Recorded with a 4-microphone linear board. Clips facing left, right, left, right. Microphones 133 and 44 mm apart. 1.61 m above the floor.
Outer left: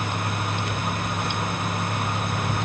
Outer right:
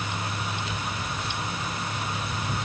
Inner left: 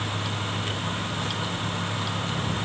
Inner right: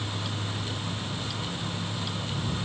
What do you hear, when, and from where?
Only background noise.